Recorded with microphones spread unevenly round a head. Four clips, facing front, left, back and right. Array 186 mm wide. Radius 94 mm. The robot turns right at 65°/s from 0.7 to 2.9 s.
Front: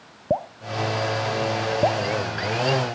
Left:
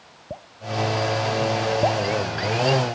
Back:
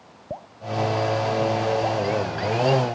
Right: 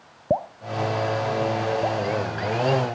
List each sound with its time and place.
0.3 s dripping: 50° right; by 2.0 s 40° left